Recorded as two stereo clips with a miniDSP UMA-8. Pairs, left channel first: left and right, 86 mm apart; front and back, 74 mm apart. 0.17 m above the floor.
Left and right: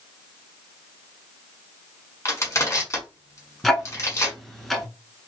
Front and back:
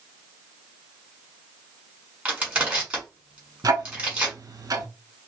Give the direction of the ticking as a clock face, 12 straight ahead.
6 o'clock.